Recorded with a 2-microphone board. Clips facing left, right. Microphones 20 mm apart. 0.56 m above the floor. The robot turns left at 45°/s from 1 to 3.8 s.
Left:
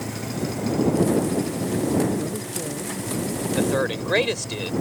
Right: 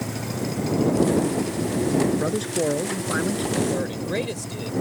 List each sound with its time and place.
2.1 s a man speaking: 40° right; by 3.5 s 105° right
3.6 s a man speaking: 45° left (ahead or behind); by 4.7 s 40° left (ahead or behind)